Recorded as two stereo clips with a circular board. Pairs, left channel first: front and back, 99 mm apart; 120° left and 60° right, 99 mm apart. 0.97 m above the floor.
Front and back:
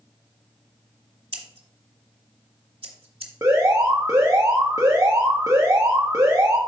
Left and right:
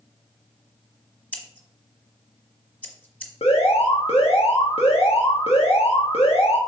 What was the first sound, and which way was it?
Scissors, 165° right.